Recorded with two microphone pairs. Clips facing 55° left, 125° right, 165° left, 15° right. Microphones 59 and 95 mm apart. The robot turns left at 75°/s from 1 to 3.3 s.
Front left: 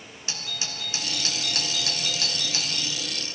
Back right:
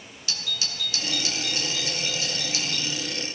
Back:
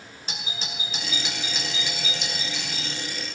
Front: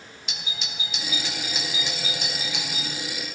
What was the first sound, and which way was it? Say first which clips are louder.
A doorbell: back right 2 dB, back 2 dB; 115° left.